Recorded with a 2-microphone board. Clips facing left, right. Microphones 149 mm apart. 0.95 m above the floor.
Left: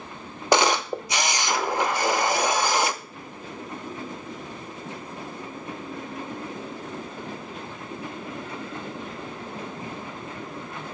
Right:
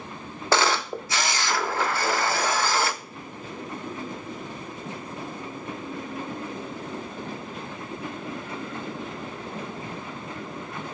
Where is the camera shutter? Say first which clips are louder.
Left 3 dB; 15° left (ahead or behind), 0.6 m.